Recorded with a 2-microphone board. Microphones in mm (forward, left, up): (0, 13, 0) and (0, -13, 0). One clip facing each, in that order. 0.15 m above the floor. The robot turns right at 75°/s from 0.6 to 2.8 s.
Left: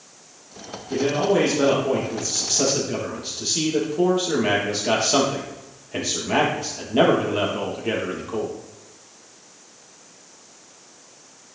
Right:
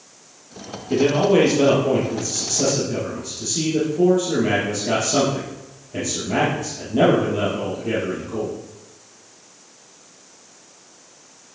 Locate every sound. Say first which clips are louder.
0.9 s a man speaking: right 4 dB; 100° right, 3.5 m; by 8.5 s 45° left, 3.5 m